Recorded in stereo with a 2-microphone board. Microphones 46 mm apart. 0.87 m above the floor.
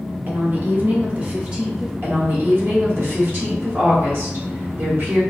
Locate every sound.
0.3 s a woman speaking: 45° right (ahead or behind), 0.6 m; by 1.9 s 20° right (ahead or behind), 0.9 m
2.0 s a woman speaking: 55° right (ahead or behind), 1.1 m